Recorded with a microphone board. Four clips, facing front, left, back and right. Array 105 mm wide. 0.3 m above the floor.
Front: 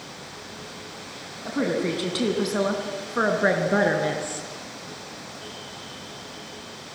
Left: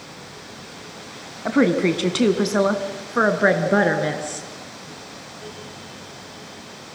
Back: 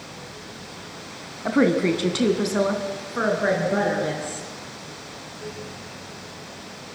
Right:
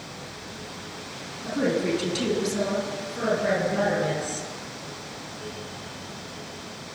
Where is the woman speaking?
125° left, 2.5 m; by 4.5 s 65° left, 4 m.